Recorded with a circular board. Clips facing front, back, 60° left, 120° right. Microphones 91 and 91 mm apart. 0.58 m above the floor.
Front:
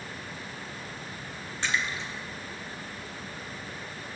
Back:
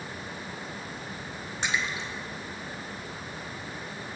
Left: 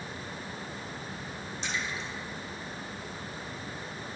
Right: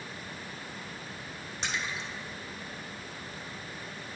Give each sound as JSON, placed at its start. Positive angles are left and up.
{"t": 1.6, "sound": "a splash", "azimuth_deg": -110, "distance_m": 1.9}